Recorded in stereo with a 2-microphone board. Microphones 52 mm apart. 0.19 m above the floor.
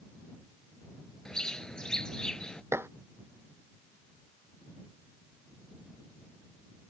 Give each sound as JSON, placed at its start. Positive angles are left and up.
{"t": 1.2, "sound": "a bird", "side_deg": 15}
{"t": 2.7, "sound": "dishes clattering", "side_deg": -50}